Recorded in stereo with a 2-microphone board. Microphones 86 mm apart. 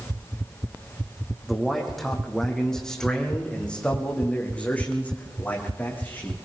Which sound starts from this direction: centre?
A man speaking, at 1.5 s.